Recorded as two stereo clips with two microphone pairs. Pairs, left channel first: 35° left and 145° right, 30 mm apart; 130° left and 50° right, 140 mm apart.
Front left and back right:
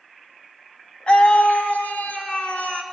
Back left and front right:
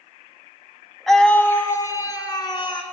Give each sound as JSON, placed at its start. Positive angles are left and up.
{"t": 1.1, "sound": "a scream", "azimuth_deg": 40, "distance_m": 1.4}